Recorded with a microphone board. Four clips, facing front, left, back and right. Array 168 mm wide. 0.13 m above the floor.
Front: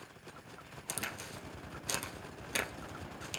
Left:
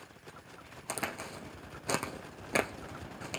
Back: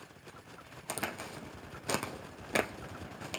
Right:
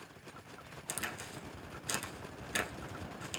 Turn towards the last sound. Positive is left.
turn(degrees=125)